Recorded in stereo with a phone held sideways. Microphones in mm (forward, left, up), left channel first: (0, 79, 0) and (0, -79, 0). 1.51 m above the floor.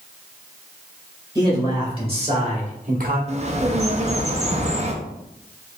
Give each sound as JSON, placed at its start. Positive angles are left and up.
{"t": 1.4, "sound": "a man speaking", "side_deg": -25, "distance_m": 1.9}
{"t": 3.3, "sound": "a bird", "side_deg": -45, "distance_m": 0.5}